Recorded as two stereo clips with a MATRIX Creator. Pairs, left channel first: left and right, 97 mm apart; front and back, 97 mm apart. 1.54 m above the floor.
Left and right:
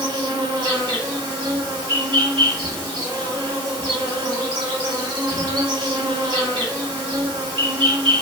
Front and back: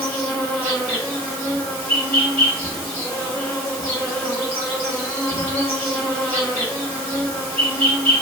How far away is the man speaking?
I don't hear a man speaking.